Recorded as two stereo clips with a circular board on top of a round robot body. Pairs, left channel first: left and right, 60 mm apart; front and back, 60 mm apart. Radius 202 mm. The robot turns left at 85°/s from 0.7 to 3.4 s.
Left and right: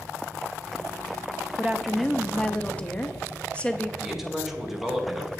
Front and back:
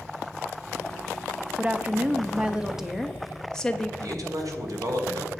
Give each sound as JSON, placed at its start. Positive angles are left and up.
{"t": 1.6, "sound": "a woman speaking", "azimuth_deg": -145, "distance_m": 1.1}
{"t": 4.0, "sound": "a man speaking", "azimuth_deg": -175, "distance_m": 2.0}